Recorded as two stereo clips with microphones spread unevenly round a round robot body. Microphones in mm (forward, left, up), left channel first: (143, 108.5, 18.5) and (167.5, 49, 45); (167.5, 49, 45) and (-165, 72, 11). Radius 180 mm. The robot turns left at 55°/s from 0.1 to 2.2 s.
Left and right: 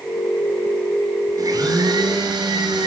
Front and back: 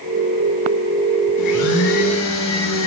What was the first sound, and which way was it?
A blender, 35° right.